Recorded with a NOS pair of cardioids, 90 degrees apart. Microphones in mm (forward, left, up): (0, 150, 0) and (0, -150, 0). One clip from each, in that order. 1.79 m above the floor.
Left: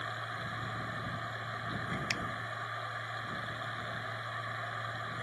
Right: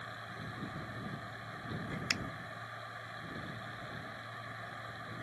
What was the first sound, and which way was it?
A machine running, 50° left.